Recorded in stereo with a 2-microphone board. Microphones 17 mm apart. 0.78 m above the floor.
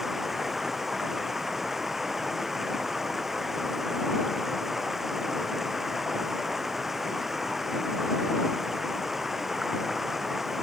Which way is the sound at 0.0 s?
20° right (ahead or behind).